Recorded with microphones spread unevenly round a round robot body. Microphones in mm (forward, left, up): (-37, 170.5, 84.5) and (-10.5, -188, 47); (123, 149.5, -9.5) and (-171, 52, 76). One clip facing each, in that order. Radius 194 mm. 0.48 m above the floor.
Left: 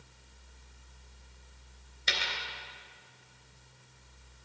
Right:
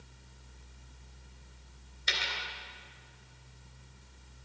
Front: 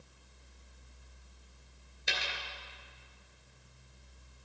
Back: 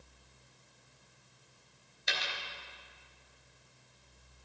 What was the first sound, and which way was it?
A dropped coin, 75° left.